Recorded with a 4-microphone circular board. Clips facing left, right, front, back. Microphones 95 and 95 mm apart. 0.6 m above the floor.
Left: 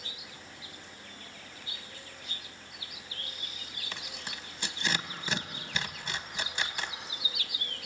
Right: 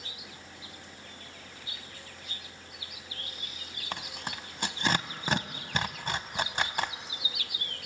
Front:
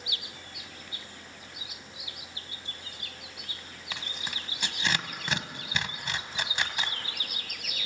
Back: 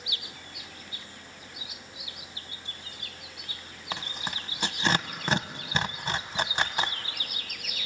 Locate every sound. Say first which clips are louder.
3.9 s tearing paper: right 6 dB, back 5 dB; 130° right, 0.9 m